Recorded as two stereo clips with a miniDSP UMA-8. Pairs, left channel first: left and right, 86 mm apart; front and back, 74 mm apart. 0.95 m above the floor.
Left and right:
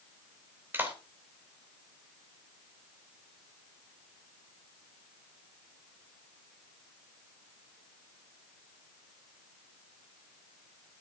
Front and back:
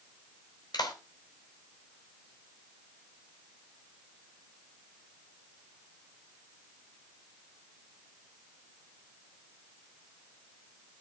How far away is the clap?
About 4 m.